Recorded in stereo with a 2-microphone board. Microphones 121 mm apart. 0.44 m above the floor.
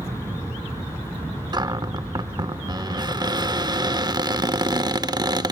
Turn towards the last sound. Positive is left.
turn(degrees=-35)  # may be behind; listen again after turning